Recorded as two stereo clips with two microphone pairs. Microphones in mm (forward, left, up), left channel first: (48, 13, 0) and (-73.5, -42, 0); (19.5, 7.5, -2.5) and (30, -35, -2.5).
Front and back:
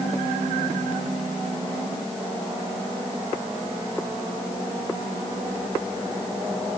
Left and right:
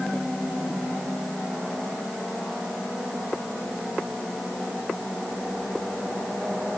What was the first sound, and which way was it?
Only background noise.